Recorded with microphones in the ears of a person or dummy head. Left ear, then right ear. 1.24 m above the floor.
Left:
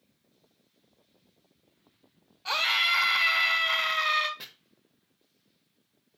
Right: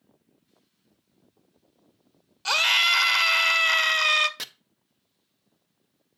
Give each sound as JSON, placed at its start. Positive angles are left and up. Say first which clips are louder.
{"t": 2.5, "sound": "a scream", "louder": "right 5 dB", "side_deg": -80, "distance_m": 1.2}
{"t": 4.4, "sound": "chopping", "louder": "right 8 dB", "side_deg": -75, "distance_m": 0.7}